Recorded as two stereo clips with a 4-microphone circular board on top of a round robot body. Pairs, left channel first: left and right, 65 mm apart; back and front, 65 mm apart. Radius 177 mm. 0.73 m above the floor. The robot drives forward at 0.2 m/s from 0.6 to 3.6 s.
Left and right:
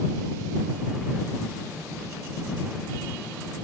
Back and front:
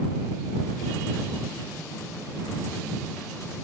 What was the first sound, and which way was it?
Only background noise.